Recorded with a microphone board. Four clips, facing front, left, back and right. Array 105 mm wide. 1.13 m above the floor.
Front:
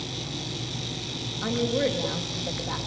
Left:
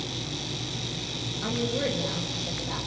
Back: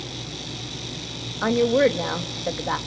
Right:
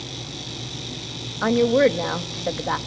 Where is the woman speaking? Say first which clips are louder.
Right 12 dB, back 7 dB; 120° right, 1.8 m.